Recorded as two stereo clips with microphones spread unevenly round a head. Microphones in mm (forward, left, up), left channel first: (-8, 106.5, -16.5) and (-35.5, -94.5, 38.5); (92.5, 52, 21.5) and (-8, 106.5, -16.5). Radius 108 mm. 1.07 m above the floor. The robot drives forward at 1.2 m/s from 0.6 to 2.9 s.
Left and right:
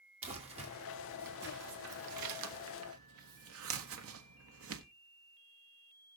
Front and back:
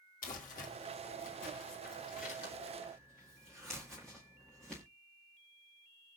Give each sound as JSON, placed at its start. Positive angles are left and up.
{"t": 0.2, "sound": "crumpling", "azimuth_deg": -35, "distance_m": 2.5}